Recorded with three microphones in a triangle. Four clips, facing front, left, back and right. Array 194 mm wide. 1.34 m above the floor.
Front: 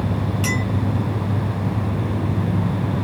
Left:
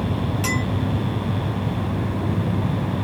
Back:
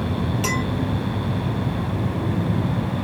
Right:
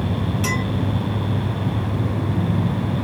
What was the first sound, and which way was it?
A clink, 175° left.